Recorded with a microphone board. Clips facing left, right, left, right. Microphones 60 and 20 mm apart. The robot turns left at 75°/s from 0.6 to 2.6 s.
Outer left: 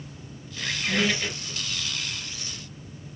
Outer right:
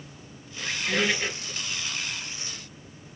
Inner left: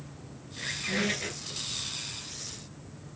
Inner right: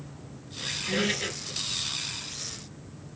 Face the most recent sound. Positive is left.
turn(degrees=-130)